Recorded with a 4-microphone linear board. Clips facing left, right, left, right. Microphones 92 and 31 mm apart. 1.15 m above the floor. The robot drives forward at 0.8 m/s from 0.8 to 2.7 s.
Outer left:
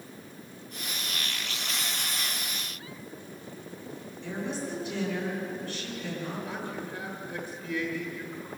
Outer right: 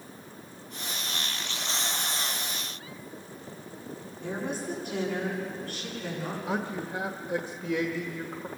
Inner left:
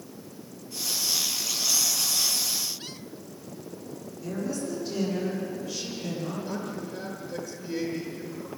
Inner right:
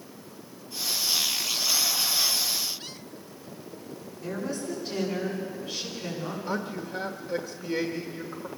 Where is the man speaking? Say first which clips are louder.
Outer right 4 dB, inner right 2 dB; 80° right, 1.2 m.